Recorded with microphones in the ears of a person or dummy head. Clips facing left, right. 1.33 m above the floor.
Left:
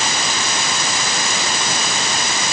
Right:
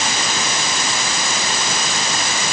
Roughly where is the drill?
No drill in this recording.